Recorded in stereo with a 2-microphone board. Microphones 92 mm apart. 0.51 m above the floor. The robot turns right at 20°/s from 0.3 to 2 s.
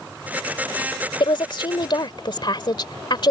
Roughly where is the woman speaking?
Left.